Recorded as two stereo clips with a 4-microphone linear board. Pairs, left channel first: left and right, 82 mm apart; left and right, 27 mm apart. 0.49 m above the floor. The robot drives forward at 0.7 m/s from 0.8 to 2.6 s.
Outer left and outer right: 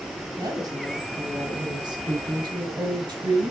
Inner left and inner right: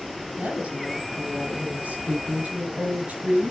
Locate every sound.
0.4 s a woman speaking: 55° right (ahead or behind), 4 m; by 3.5 s 70° right (ahead or behind), 3.5 m